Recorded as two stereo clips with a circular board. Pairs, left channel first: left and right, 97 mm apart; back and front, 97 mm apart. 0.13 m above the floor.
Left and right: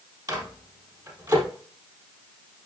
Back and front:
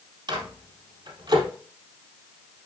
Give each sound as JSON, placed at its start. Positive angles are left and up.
{"t": 0.3, "sound": "a microwave", "azimuth_deg": -40, "distance_m": 3.0}